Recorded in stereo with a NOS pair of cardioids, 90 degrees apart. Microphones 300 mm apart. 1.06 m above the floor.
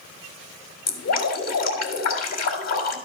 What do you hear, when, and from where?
0.9 s dripping: 55° left, 2.5 m